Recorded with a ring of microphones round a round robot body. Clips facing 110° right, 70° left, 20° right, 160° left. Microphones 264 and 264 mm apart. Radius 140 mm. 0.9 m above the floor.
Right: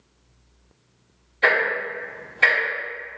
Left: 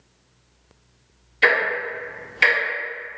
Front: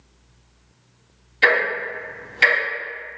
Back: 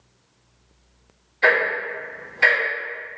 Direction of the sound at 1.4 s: 20° left.